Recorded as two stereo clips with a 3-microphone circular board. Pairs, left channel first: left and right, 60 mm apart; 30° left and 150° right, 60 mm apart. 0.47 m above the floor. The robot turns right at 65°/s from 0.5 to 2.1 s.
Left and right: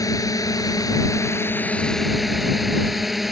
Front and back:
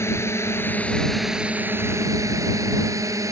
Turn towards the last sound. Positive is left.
turn(degrees=-175)